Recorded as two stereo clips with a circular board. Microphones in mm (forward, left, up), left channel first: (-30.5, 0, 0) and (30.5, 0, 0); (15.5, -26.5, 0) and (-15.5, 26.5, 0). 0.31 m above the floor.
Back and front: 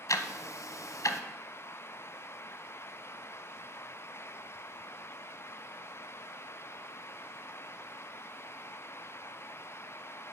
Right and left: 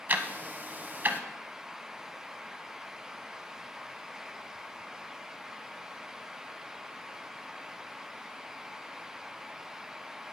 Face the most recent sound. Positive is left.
turn(degrees=175)